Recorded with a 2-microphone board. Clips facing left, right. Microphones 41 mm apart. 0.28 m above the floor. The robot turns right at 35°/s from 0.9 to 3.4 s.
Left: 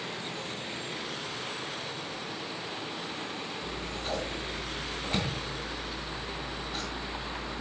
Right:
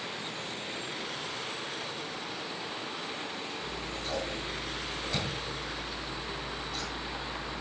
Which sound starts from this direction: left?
Scissors, at 3.6 s.